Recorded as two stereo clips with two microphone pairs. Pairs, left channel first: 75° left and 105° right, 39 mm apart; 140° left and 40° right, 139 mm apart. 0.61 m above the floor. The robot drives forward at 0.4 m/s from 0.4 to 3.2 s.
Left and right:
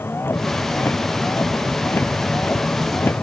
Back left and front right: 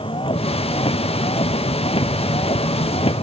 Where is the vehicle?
90° left.